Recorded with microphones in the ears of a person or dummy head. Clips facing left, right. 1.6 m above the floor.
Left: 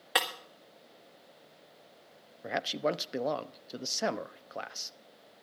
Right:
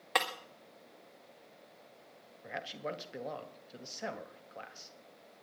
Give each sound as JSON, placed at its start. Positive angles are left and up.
{"t": 0.1, "sound": "breaking glass", "side_deg": 10, "distance_m": 1.7}
{"t": 2.4, "sound": "a man speaking", "side_deg": 70, "distance_m": 0.9}